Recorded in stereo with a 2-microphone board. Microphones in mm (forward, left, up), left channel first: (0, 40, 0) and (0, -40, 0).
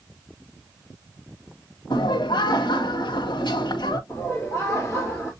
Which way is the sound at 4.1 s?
15° left (ahead or behind).